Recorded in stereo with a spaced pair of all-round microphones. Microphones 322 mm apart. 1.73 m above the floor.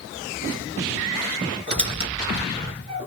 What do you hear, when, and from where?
1.7 s a squeak: 20° right (ahead or behind), 2.5 m